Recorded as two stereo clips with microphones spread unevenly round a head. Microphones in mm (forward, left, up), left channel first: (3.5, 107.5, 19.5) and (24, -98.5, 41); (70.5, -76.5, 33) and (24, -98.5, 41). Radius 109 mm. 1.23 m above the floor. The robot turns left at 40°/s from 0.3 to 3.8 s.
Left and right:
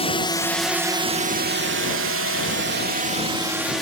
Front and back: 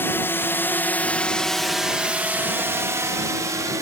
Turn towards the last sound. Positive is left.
turn(degrees=-175)